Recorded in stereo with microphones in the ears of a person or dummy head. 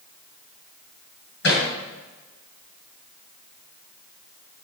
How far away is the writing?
I don't hear writing.